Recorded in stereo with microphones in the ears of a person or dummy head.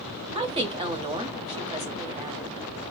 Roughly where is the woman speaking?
Right.